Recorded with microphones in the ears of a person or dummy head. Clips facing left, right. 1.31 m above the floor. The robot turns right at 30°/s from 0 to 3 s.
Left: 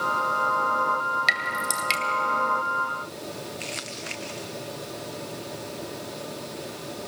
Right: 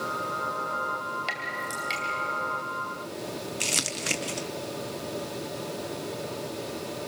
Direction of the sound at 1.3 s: 30° left (ahead or behind).